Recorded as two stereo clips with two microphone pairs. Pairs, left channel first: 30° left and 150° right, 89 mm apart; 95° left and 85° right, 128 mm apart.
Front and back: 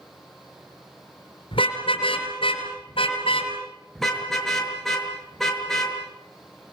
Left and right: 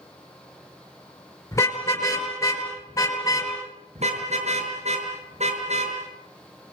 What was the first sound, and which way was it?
A car horn, 30° left.